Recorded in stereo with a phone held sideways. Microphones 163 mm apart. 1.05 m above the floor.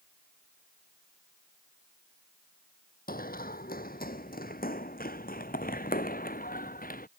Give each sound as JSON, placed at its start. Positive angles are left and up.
{"t": 3.1, "sound": "running footsteps", "side_deg": 65}